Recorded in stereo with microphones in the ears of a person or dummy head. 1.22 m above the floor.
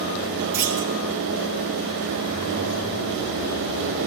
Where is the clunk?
15° right (ahead or behind), 5 m.